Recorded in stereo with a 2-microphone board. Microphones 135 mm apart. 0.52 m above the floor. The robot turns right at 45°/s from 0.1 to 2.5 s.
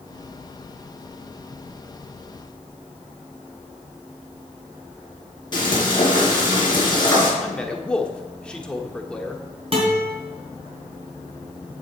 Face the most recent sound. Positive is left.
turn(degrees=-45)  # may be behind; listen again after turning